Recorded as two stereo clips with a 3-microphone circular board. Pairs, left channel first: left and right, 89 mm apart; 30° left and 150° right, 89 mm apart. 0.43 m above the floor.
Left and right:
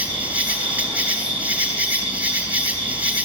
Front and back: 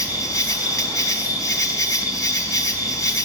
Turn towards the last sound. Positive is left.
turn(degrees=-20)